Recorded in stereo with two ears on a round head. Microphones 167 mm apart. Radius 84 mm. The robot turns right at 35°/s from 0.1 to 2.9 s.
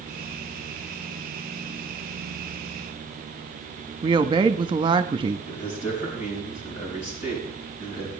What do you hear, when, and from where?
4.0 s a woman speaking: 25° right (ahead or behind), 0.8 m
5.5 s a man speaking: 40° left (ahead or behind), 5.5 m